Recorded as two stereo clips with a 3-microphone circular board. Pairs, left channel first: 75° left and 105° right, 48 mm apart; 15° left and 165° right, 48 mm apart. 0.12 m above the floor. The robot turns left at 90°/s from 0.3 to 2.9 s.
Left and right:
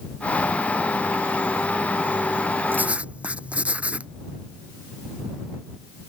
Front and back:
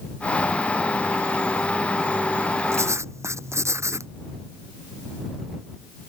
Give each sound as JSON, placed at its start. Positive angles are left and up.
{"t": 2.7, "sound": "writing", "azimuth_deg": -150}